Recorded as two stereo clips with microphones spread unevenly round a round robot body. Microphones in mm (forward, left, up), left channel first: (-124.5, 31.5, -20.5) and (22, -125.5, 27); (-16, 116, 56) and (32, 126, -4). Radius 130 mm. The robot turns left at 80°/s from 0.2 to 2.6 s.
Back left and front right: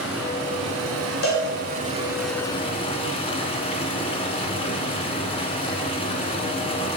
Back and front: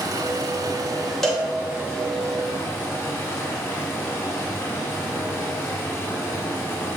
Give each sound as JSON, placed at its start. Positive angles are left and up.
{"t": 0.0, "sound": "running water", "azimuth_deg": 35, "distance_m": 1.6}
{"t": 1.2, "sound": "a cowbell", "azimuth_deg": 90, "distance_m": 2.5}